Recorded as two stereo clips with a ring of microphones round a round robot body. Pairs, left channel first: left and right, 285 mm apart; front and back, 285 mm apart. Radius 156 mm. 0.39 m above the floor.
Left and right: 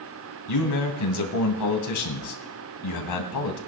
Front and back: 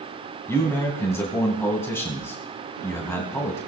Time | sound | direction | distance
0.5 | a man speaking | 80° left | 2.5 m